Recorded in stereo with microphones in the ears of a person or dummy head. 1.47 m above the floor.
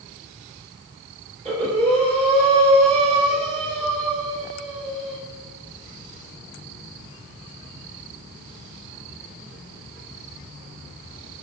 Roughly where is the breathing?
Right.